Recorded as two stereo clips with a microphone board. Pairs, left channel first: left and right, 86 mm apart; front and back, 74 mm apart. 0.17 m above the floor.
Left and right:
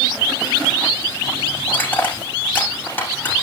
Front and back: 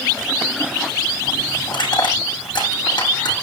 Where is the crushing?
20° left, 8 m.